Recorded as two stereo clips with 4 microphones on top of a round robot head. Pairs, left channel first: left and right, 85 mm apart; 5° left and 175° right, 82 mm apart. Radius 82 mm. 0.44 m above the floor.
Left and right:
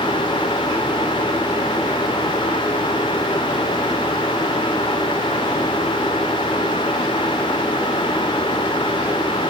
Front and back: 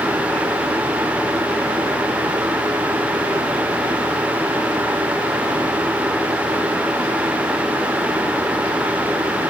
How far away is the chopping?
I don't hear chopping.